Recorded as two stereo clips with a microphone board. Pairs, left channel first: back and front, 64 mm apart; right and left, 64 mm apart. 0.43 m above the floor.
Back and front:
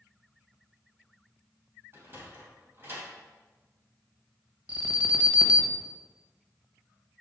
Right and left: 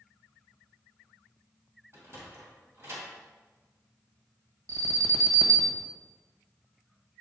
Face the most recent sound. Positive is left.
turn(degrees=65)